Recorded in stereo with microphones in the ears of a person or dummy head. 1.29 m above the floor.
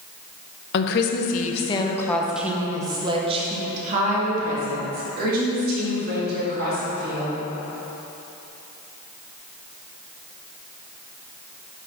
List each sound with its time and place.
0.7 s a woman speaking: 65° left (ahead or behind), 0.9 m; by 7.4 s 55° right (ahead or behind), 3.5 m